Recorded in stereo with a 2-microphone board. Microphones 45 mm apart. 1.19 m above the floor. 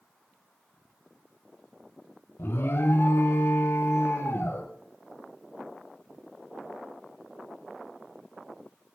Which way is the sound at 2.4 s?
60° left (ahead or behind).